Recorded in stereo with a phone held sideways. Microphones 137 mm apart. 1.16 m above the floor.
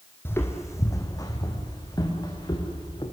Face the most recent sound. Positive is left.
turn(degrees=30)  # may be behind; listen again after turning